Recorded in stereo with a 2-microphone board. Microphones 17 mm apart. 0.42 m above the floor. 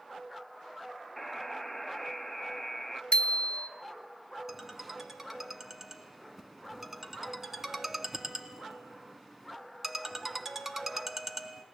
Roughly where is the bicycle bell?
Left.